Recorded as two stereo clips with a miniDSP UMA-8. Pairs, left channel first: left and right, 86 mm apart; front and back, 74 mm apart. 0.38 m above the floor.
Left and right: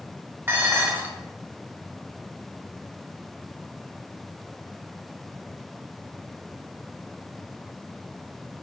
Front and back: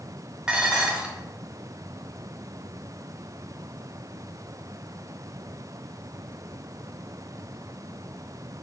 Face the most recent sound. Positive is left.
turn(degrees=-115)